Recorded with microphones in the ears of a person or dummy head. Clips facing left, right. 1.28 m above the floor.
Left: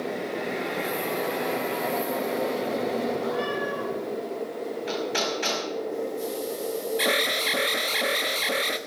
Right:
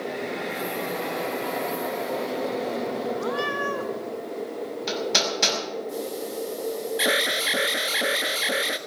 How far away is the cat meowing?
About 2.5 m.